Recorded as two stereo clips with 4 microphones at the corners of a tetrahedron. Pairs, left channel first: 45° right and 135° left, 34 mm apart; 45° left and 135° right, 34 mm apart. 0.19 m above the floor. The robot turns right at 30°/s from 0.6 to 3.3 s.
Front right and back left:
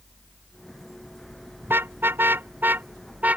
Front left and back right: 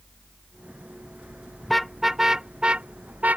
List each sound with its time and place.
1.6 s a car horn: 130° left; by 3.4 s straight behind